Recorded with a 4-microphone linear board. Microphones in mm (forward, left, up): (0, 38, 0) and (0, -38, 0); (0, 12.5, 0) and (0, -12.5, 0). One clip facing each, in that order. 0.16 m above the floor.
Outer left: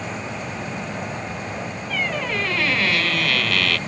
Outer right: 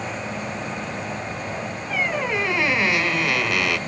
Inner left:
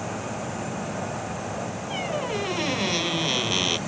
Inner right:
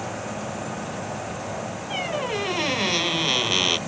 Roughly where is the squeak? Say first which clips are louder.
Outer right 2 dB, inner right 2 dB; centre.